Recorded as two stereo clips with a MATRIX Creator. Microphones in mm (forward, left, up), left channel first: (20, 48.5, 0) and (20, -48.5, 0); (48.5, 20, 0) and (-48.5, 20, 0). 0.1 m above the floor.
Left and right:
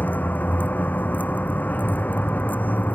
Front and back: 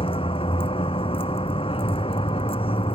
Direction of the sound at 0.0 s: 15° left.